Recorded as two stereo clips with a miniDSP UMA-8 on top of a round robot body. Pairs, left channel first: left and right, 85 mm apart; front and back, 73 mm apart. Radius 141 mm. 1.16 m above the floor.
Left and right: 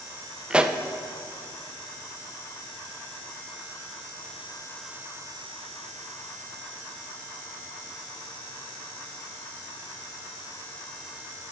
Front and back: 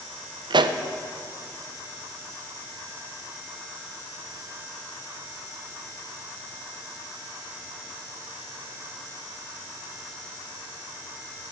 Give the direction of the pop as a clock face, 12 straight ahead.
6 o'clock.